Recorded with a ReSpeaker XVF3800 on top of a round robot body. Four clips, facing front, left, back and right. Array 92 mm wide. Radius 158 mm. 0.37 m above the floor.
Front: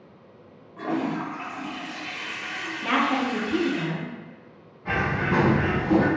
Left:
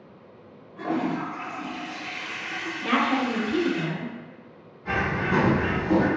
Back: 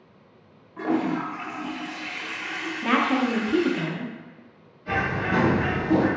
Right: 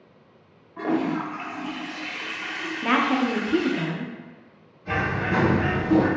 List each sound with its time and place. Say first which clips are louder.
0.8 s a toilet flushing: right 2 dB, back 2 dB; 120° right, 0.9 m
2.8 s a woman speaking: right 2 dB, back 1 dB; 110° right, 0.8 m
4.8 s a bird: even, even; 25° left, 1.0 m